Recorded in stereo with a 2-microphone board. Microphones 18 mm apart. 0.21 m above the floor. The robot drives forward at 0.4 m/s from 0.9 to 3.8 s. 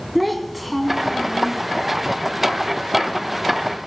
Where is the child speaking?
5° right (ahead or behind), 1.3 m.